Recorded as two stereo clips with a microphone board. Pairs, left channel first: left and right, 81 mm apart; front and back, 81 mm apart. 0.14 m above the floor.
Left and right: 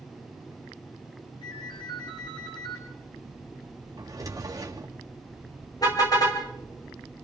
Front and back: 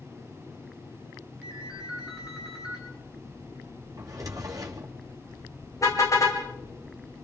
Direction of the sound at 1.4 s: 100° left.